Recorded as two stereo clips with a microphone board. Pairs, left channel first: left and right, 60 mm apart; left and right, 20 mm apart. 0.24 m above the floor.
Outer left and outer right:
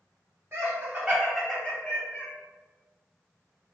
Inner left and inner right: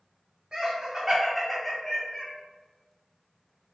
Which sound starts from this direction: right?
Laughter, at 0.5 s.